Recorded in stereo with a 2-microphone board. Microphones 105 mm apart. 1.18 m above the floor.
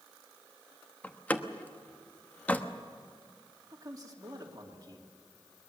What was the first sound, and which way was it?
A door slam, 15° left (ahead or behind).